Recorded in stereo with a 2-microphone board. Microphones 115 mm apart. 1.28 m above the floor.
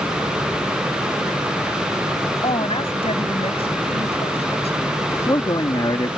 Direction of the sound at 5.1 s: 35° left (ahead or behind).